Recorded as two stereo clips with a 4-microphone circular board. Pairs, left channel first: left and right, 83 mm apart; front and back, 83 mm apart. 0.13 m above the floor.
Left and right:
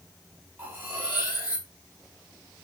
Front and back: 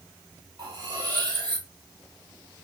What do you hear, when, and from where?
0.6 s cutlery clinking: 150° right, 1.8 m